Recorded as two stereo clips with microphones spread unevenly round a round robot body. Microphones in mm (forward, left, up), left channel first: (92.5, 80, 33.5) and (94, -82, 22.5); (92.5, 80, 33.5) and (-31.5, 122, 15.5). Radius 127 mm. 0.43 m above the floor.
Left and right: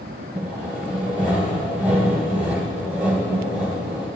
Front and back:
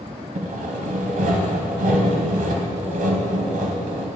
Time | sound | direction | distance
0.3 | sawing | 165° left | 0.9 m